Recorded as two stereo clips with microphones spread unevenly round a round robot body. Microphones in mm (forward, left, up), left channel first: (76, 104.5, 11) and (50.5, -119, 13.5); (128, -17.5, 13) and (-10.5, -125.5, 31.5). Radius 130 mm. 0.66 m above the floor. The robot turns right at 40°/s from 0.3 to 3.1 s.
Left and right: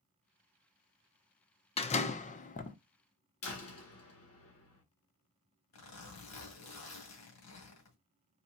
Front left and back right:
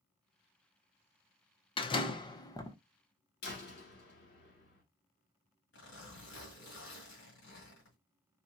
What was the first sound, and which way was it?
A door slam, 45° left.